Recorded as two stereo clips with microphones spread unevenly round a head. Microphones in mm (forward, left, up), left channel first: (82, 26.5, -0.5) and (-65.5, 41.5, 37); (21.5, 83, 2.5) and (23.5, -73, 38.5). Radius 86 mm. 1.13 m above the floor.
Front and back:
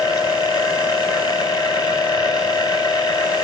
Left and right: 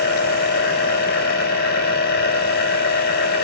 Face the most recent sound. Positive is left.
turn(degrees=60)